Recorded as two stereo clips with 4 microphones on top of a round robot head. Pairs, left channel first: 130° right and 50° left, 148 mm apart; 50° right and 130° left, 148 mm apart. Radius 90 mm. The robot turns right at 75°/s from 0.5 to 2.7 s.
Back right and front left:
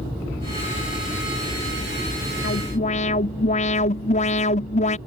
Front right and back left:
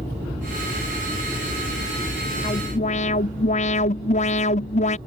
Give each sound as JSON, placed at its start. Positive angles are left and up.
{"t": 2.4, "sound": "an alarm", "azimuth_deg": -110}